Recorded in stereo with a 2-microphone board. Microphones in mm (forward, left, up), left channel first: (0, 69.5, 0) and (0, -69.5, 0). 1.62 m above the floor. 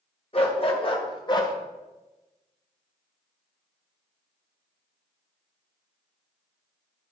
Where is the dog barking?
45° left (ahead or behind), 1.8 m; by 1.5 s 30° left (ahead or behind), 1.5 m.